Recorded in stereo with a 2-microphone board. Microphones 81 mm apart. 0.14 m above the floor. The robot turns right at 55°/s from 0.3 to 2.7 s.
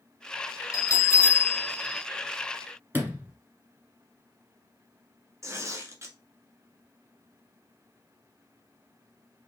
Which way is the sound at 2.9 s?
25° right (ahead or behind).